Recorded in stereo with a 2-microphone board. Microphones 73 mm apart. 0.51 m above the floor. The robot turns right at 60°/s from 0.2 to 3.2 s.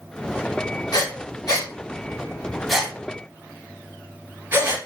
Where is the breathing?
65° left (ahead or behind), 1.3 m; by 4.8 s 30° right (ahead or behind), 1.3 m.